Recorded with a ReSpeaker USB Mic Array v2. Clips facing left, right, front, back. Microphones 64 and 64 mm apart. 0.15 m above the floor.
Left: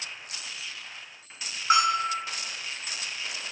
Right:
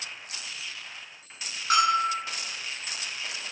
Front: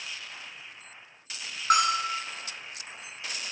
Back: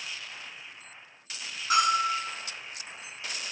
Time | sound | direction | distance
1.7 | a bell | 25° left | 0.5 m